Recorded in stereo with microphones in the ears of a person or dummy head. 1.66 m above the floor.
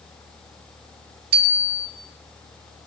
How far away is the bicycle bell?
About 8 m.